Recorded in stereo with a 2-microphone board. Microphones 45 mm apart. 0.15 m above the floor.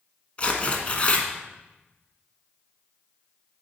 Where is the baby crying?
I don't hear a baby crying.